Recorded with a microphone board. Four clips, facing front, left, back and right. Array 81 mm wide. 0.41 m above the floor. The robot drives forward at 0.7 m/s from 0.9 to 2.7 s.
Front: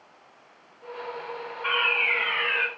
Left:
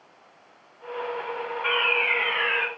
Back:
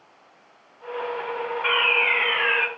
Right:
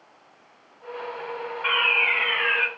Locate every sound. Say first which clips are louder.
1.6 s a fire alarm: right 1 dB, back 2 dB; 160° right, 2.5 m; by 2.7 s 165° right, 3 m